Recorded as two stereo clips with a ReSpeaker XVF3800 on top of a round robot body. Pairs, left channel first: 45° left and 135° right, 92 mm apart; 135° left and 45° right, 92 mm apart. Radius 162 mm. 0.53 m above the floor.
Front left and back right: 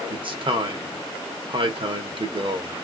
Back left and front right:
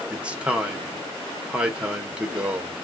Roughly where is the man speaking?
Behind right.